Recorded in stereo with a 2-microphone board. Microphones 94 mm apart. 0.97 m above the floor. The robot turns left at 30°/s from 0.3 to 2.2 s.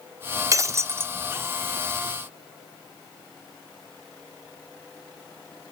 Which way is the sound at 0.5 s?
35° right (ahead or behind).